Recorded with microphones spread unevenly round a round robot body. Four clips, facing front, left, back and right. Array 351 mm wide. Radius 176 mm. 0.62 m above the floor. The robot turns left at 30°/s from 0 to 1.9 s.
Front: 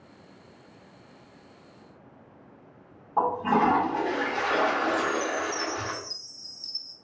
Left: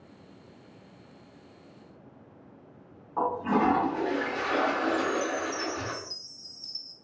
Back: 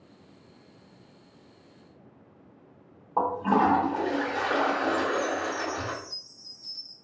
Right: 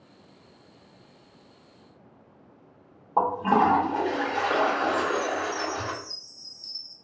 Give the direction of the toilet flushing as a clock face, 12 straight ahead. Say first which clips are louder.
Right 4 dB, even; 3 o'clock.